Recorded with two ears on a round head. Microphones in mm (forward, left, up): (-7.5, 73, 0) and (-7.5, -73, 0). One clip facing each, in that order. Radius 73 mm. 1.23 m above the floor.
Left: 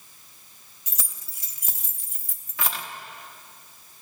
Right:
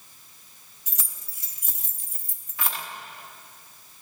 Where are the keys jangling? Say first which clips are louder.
Left 3 dB; 60° left (ahead or behind), 0.8 m.